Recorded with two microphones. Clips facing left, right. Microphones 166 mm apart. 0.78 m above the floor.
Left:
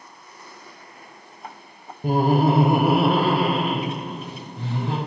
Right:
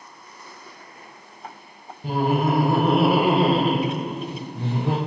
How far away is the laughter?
About 0.7 m.